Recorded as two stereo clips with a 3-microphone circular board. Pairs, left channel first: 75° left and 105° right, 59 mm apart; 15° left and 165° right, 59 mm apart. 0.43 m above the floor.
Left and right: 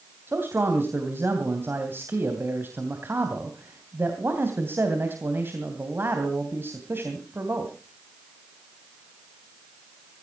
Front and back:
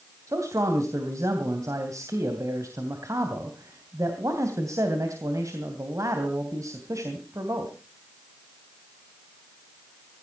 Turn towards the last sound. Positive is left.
turn(degrees=-150)